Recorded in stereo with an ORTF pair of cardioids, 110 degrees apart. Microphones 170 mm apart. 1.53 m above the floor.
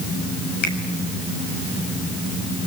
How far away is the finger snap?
About 7 m.